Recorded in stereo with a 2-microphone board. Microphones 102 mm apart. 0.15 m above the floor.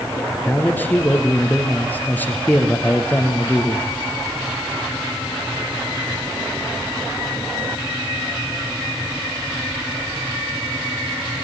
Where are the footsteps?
I don't hear footsteps.